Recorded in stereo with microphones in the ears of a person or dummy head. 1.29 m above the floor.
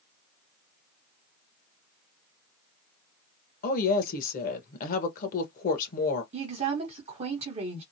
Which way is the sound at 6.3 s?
35° right (ahead or behind).